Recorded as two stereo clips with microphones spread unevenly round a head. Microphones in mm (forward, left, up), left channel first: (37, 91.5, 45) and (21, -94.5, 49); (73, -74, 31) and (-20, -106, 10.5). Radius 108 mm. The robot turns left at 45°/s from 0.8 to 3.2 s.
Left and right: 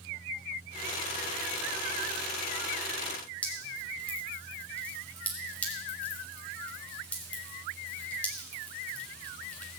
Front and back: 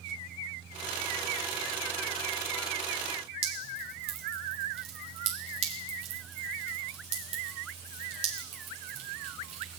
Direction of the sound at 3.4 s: 170° left.